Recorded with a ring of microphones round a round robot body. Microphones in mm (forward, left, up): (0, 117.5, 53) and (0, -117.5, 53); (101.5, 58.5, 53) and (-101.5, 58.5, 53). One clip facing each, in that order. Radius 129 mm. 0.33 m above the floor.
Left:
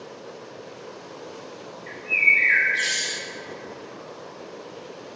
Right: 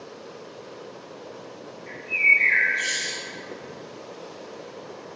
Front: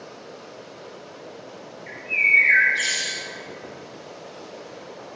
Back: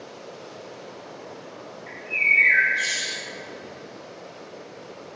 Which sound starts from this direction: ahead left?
A bird, at 1.9 s.